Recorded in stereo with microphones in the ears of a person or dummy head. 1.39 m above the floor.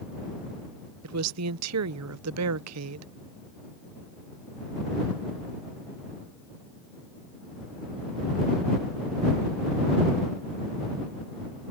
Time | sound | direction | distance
1.0 | a woman speaking | 80° right | ?